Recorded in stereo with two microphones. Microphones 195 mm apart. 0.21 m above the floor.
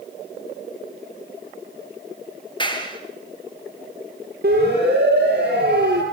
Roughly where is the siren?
Right.